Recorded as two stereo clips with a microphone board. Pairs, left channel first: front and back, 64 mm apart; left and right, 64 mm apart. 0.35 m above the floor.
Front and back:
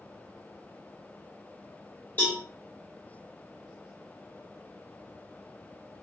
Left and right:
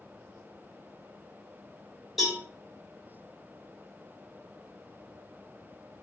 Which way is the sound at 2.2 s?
5° right.